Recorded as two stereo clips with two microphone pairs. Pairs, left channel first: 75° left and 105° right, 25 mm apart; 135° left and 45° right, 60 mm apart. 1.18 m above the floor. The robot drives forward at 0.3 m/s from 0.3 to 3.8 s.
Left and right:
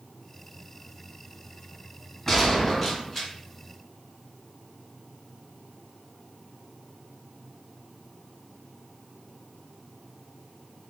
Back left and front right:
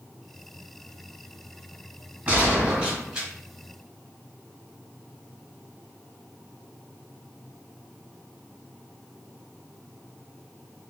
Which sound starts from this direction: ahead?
A gunshot, at 2.3 s.